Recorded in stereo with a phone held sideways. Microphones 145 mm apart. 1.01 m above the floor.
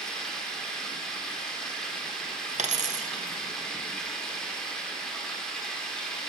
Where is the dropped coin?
55° right (ahead or behind), 0.6 m.